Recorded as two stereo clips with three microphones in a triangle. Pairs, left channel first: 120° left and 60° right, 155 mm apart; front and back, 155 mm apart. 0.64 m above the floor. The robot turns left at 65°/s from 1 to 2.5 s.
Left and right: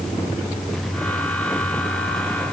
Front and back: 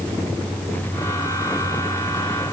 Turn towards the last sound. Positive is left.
No sound to turn to.